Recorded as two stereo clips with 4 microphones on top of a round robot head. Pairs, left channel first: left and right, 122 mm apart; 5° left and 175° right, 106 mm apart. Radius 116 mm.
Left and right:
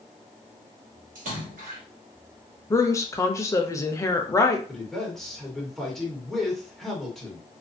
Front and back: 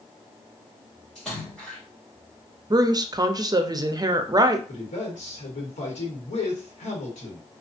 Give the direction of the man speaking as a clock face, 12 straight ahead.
12 o'clock.